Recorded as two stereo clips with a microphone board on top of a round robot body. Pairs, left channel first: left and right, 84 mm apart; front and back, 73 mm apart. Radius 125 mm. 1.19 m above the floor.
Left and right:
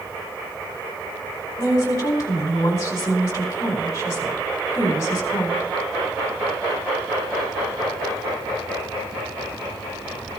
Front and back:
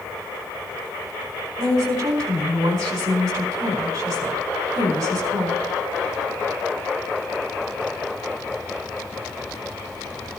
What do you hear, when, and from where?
1.6 s a woman speaking: 150° left, 4 m